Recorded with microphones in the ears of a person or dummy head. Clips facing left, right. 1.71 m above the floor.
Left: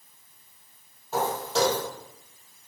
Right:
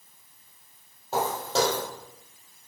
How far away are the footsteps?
About 3 m.